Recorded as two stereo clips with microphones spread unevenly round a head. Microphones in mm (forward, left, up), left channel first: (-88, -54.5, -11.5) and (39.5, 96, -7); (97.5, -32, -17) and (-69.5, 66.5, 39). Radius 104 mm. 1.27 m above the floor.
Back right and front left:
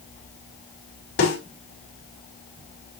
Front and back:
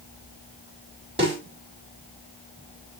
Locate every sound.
1.2 s a snare drum: 145° right, 5.5 m